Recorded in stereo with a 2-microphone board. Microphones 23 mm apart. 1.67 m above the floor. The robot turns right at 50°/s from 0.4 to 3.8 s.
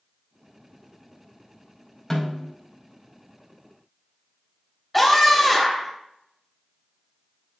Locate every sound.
2.1 s a snare drum: 10° left (ahead or behind), 3 m; by 2.5 s 30° left (ahead or behind), 3 m
4.9 s a scream: centre (ahead or behind), 2.5 m